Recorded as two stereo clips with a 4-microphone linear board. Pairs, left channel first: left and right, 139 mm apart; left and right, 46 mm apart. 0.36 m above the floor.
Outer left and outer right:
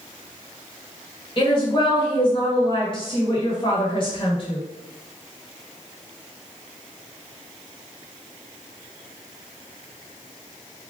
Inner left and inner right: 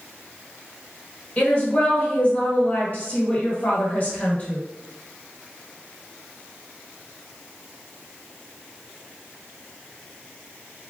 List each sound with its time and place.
1.4 s a woman speaking: 35° left (ahead or behind), 1.5 m